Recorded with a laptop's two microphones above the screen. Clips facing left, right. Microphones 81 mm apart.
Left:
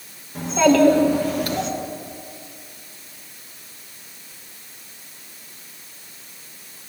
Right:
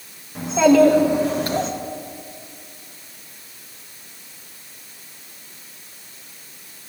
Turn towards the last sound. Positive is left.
turn(degrees=-40)  # may be behind; listen again after turning